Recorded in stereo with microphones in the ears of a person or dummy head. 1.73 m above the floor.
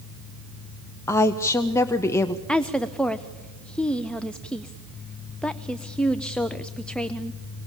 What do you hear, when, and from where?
1.1 s a woman speaking: 15° left (ahead or behind), 0.7 m
2.5 s a woman speaking: 5° left (ahead or behind), 0.6 m